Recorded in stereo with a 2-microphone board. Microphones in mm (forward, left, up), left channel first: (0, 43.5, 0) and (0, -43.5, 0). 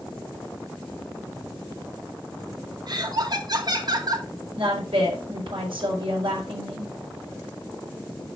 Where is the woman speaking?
80° right, 5.5 m.